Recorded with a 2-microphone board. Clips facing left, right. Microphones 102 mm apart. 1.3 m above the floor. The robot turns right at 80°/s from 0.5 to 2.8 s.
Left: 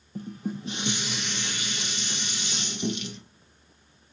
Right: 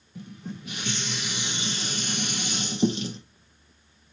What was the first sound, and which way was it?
Dishes clattering, 130° left.